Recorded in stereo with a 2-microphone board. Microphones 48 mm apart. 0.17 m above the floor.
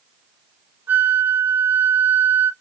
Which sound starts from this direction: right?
A flute, at 0.9 s.